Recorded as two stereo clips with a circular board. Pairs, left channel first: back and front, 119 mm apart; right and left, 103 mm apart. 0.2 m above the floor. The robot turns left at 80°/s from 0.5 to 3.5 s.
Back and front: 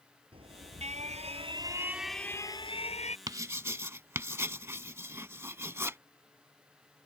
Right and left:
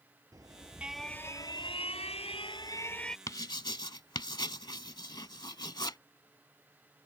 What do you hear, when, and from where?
0.3 s an alarm: 35° left; by 3.2 s 175° right
3.3 s writing: 40° right; by 6.0 s 60° right